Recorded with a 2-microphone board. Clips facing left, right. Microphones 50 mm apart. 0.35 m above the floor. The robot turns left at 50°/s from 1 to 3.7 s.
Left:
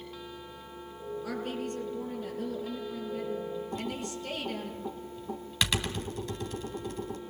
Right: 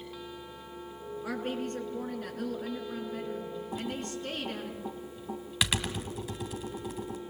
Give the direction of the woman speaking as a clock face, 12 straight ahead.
1 o'clock.